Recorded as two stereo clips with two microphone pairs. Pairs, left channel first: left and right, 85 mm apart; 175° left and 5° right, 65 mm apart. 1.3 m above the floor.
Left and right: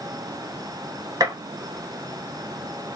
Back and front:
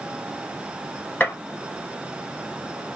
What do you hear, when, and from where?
1.2 s a gunshot: 130° right, 0.8 m